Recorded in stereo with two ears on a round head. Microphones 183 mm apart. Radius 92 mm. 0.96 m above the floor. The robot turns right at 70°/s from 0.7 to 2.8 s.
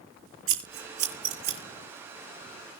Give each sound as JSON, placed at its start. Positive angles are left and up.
{"t": 0.5, "sound": "scissors", "side_deg": -70, "distance_m": 7.0}